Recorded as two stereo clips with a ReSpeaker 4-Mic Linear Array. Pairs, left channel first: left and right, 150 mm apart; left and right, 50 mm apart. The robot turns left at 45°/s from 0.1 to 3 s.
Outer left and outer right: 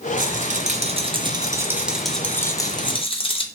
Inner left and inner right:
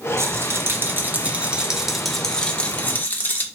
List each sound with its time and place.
0.2 s a rattle: 95° right, 0.5 m; by 3.5 s 135° left, 0.5 m